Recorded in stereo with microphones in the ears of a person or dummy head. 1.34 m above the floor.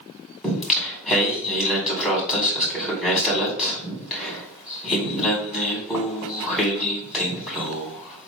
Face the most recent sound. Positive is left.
turn(degrees=0)  # may be behind; listen again after turning